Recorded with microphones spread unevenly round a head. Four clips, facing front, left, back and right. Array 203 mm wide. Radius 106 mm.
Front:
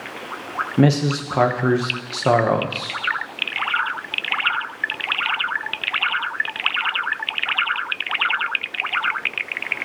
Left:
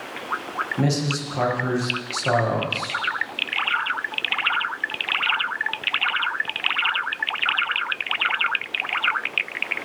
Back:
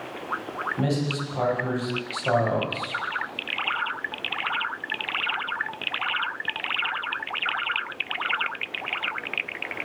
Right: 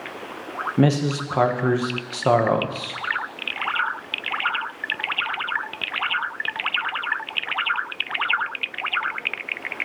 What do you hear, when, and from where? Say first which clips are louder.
0.8 s a man speaking: right 5 dB, front 10 dB; 30° right, 1.2 m